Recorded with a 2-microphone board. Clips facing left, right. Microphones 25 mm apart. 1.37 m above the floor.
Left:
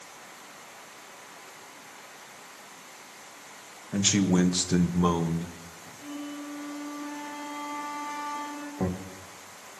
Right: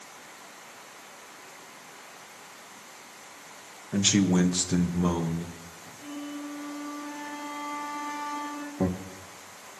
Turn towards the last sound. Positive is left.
turn(degrees=-30)  # may be behind; listen again after turning